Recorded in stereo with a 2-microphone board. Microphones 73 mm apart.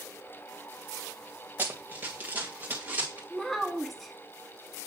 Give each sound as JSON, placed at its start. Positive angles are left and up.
{"t": 1.6, "sound": "running footsteps", "side_deg": -30, "distance_m": 1.1}
{"t": 3.3, "sound": "a child speaking", "side_deg": 0, "distance_m": 0.8}